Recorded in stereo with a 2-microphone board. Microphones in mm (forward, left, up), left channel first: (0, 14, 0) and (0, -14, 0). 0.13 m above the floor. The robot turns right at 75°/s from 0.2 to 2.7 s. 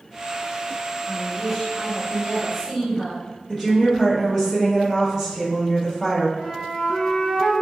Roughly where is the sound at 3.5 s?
Centre.